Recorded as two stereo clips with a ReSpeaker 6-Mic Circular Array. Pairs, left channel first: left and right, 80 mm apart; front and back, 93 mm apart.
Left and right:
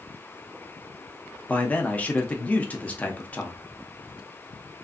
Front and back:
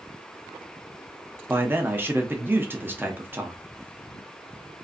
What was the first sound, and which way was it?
A man speaking, 140° left.